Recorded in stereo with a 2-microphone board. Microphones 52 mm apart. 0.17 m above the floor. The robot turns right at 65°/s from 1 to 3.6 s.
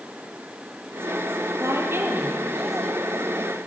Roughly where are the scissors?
No scissors in this recording.